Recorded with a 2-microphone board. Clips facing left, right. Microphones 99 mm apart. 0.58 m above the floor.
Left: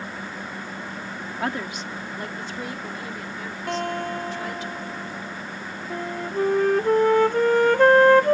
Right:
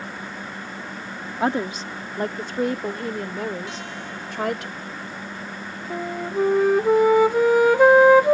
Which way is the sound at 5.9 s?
10° right (ahead or behind).